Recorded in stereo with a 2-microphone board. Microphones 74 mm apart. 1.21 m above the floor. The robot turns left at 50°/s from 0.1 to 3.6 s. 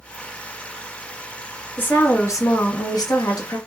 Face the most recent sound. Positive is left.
turn(degrees=65)